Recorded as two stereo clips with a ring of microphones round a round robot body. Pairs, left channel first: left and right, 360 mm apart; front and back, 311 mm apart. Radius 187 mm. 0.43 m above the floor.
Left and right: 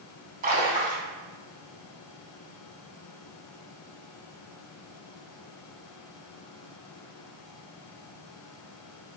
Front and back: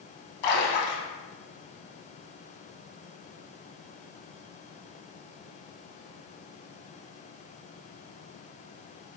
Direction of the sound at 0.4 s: 20° right.